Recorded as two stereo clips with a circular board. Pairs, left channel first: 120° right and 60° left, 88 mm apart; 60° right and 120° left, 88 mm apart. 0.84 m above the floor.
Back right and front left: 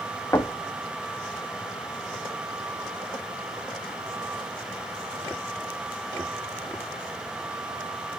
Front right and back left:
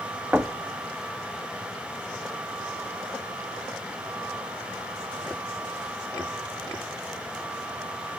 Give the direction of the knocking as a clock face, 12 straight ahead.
6 o'clock.